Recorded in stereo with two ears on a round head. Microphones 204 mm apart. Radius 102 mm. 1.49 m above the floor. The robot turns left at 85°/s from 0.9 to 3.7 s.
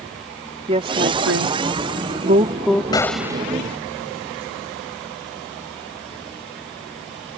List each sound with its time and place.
0.7 s a woman speaking: 25° right (ahead or behind); by 2.8 s 10° left (ahead or behind)
2.9 s a gunshot: 20° left; by 3.5 s 25° right